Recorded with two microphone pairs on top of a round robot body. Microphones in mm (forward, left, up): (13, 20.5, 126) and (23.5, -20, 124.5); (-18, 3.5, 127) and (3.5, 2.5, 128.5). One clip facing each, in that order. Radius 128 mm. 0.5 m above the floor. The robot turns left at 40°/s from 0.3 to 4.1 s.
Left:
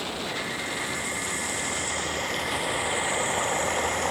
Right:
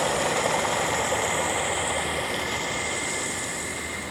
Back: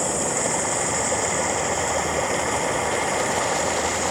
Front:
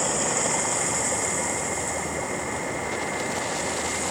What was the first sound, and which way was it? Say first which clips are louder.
Running water: right 7 dB, back 1 dB; 80° right.